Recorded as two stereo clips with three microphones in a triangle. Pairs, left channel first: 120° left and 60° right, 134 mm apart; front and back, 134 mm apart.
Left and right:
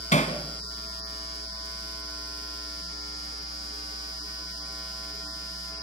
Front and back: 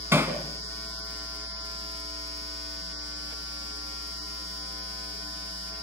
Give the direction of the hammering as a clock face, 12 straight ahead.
8 o'clock.